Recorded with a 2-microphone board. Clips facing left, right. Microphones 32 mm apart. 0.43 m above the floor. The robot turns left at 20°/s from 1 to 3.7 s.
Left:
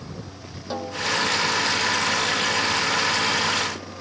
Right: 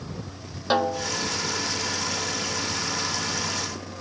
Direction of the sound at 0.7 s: 65° right (ahead or behind).